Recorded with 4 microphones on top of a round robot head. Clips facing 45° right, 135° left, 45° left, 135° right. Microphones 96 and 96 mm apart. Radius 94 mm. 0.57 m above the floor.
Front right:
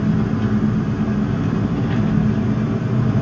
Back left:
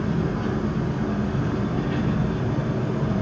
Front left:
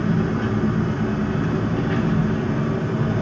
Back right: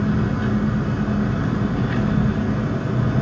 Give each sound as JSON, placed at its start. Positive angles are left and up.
{"t": 0.0, "sound": "an engine running", "azimuth_deg": -55, "distance_m": 7.0}